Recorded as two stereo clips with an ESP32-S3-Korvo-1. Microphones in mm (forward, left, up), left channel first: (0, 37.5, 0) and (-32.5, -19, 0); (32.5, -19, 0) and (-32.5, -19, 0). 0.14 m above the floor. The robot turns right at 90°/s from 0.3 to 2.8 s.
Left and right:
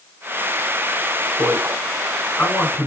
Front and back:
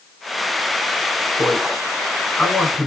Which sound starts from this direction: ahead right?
A man speaking, at 1.4 s.